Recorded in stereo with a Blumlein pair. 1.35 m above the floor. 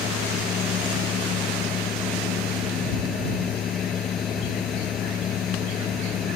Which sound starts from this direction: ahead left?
A fan, at 0.0 s.